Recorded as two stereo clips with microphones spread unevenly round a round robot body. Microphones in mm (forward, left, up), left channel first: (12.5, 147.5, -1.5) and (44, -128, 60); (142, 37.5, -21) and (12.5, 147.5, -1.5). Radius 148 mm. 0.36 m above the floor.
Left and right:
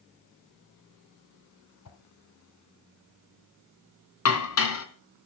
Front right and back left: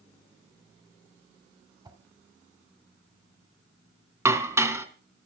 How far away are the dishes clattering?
About 2.5 m.